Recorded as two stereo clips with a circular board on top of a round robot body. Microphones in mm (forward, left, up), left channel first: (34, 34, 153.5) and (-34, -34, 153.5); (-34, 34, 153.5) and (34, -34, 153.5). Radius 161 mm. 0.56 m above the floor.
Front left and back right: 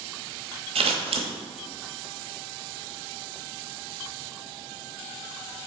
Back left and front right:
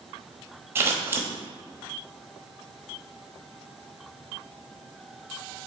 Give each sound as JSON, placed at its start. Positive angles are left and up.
{"t": 0.8, "sound": "scissors", "azimuth_deg": -115, "distance_m": 0.8}